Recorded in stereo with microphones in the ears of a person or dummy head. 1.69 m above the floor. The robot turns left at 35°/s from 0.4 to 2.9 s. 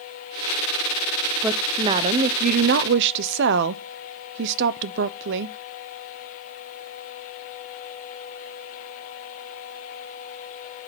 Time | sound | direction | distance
1.4 | a woman speaking | 10° right | 0.9 m